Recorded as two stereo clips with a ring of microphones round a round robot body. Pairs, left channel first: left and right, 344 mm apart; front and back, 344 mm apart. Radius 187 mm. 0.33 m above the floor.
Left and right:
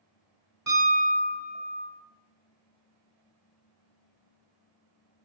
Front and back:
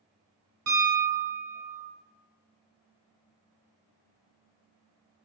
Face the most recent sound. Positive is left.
turn(degrees=-170)